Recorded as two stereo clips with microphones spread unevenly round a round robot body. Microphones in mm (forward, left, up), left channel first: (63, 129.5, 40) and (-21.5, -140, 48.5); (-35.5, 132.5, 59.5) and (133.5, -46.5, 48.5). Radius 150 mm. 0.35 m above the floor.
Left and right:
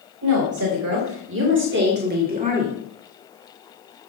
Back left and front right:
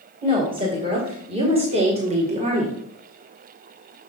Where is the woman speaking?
110° right, 2.5 m; by 2.8 s 60° right, 1.6 m.